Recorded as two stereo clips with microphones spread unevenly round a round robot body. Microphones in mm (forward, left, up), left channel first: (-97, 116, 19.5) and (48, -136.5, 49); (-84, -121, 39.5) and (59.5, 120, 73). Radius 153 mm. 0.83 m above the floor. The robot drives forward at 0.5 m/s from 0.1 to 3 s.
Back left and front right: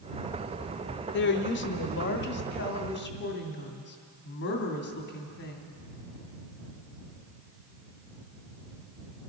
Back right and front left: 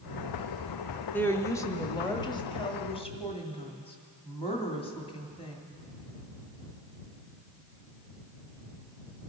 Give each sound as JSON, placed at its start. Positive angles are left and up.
{"t": 1.1, "sound": "a woman speaking", "azimuth_deg": 160, "distance_m": 1.1}